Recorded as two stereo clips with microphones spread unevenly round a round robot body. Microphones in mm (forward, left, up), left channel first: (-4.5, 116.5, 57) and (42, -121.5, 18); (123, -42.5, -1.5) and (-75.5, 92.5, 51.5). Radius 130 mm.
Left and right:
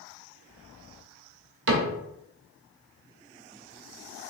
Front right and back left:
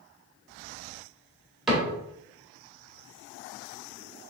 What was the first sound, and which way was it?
A cupboard door, 130° right.